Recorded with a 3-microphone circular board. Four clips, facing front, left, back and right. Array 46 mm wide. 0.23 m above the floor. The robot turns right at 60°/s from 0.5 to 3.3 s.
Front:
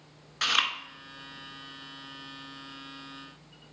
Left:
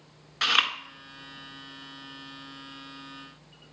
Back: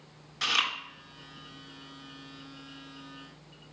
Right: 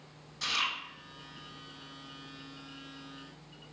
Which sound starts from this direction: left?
Chewing, at 0.4 s.